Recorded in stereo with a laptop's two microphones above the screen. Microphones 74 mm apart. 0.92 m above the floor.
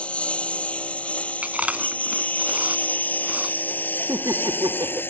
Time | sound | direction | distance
0.0 | a lawn mower | 15° left (ahead or behind) | ?
1.4 | chewing | 20° right (ahead or behind) | ?
4.1 | laughter | 65° right (ahead or behind) | ?